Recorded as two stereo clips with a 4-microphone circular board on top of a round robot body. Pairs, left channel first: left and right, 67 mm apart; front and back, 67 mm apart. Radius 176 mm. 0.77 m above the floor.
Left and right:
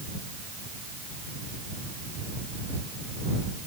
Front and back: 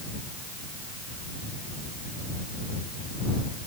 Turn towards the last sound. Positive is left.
No sound to turn to.